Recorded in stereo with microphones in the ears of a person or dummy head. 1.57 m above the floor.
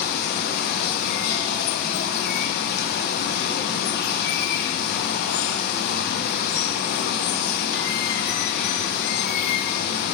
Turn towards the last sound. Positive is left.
turn(degrees=50)  # may be behind; listen again after turning